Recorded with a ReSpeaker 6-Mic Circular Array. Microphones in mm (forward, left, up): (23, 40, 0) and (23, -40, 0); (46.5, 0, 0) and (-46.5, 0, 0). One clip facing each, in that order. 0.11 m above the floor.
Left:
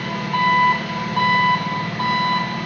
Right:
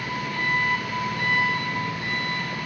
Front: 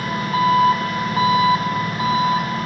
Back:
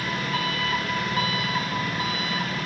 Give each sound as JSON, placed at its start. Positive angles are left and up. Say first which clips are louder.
{"t": 0.0, "sound": "an engine running", "louder": "left 8 dB, front 8 dB", "azimuth_deg": 55, "distance_m": 4.0}